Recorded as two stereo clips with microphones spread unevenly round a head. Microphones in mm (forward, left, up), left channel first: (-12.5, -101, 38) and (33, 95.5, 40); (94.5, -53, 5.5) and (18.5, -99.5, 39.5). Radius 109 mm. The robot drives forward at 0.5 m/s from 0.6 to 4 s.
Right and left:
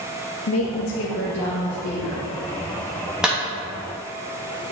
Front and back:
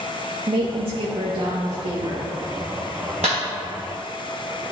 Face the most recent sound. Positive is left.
turn(degrees=165)